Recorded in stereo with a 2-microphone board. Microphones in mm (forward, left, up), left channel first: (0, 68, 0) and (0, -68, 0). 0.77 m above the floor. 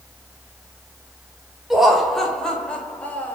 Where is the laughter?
5° right (ahead or behind), 3 m; by 3.4 s 10° left (ahead or behind), 3.5 m.